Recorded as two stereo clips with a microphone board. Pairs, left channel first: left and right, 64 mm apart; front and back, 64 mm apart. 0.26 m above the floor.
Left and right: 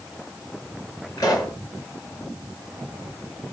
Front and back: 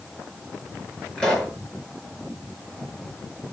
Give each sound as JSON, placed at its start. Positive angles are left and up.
{"t": 1.2, "sound": "a pop", "azimuth_deg": 80, "distance_m": 3.5}